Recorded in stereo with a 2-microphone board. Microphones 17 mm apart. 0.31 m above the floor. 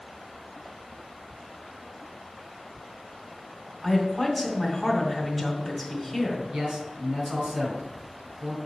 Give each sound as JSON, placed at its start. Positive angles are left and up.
{"t": 3.8, "sound": "a woman speaking", "side_deg": -10, "distance_m": 2.5}
{"t": 6.5, "sound": "a man speaking", "side_deg": -50, "distance_m": 2.5}